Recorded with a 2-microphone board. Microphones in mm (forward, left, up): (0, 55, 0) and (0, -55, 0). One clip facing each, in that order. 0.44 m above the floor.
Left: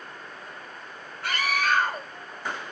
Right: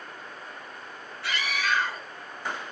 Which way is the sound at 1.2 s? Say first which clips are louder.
Left 4 dB; 50° left (ahead or behind).